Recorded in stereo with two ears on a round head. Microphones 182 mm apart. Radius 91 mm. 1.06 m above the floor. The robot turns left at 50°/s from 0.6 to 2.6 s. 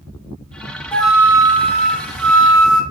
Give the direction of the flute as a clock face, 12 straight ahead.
12 o'clock.